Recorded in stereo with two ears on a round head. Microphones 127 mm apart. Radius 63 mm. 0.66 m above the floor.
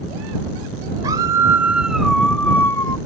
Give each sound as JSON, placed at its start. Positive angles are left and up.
{"t": 1.0, "sound": "a scream", "side_deg": -30}